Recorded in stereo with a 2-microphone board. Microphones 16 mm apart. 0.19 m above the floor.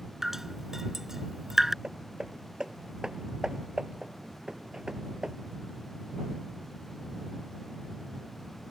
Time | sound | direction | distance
0.2 | dripping | 20° right (ahead or behind) | ?
1.8 | hammering | 50° right (ahead or behind) | ?